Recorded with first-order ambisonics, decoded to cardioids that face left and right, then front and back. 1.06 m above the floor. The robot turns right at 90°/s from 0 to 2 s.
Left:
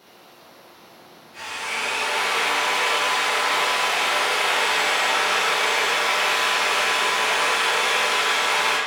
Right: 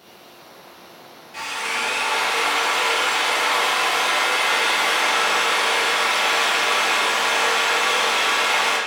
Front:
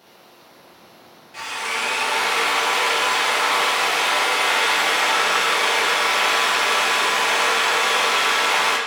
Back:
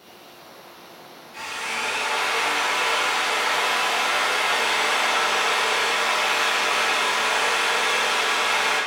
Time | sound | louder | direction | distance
1.3 | a drill | right 3 dB, front 3 dB | 65° right | 0.6 m